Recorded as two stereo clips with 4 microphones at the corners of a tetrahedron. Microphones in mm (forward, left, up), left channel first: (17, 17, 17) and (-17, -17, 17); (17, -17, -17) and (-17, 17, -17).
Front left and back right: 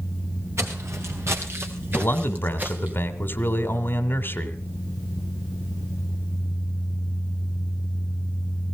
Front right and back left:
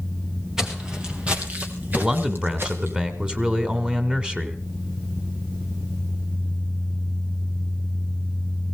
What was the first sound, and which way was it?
Footsteps, 145° right.